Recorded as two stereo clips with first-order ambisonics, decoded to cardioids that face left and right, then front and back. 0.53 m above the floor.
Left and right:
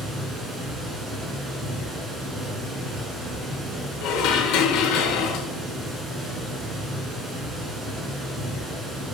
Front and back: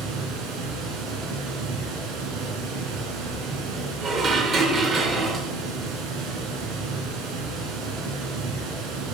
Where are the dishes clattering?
120° left, 0.9 m.